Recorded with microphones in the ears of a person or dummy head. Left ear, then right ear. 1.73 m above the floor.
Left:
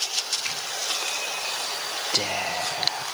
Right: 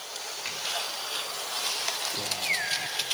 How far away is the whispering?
About 0.9 m.